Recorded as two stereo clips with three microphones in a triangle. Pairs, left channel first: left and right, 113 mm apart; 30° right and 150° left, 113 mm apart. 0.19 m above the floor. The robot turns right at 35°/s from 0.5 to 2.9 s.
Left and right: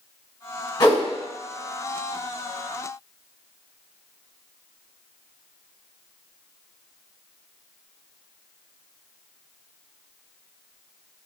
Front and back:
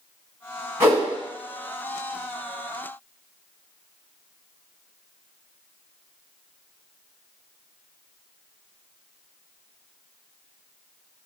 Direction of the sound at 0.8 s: 95° left.